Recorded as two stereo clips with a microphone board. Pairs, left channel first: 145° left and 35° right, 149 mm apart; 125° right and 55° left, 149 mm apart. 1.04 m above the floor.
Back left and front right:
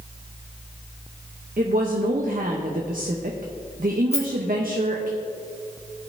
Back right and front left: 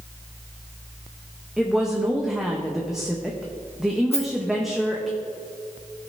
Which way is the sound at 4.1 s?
170° right.